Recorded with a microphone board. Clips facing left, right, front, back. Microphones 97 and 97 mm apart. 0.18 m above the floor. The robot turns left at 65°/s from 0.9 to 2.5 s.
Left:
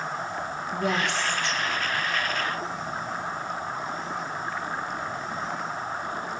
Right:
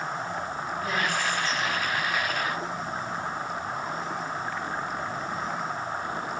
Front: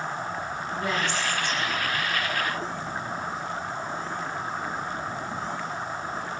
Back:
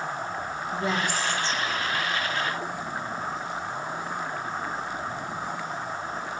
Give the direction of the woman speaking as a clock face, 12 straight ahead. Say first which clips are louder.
Left 3 dB, back 1 dB; 8 o'clock.